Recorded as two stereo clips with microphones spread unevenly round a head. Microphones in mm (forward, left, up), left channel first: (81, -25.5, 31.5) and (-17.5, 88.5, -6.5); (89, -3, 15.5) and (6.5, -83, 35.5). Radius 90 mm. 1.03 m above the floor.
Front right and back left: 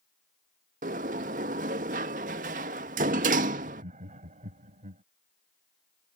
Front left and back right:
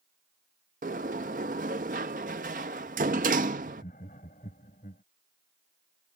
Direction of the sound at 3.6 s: 90° left.